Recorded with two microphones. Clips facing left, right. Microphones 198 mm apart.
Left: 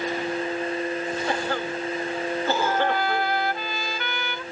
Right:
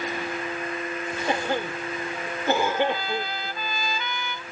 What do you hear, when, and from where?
1.3 s a cough: 20° right (ahead or behind)
2.6 s a trumpet: 65° left (ahead or behind)